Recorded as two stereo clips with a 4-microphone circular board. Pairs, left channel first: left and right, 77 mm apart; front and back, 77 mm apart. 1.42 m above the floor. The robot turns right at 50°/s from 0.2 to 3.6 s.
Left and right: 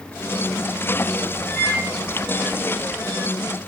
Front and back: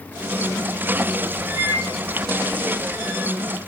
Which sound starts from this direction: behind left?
A microwave, at 1.6 s.